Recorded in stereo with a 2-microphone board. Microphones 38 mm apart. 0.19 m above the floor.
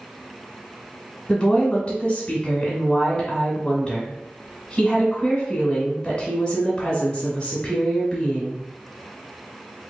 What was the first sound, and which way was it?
A woman speaking, 20° left (ahead or behind).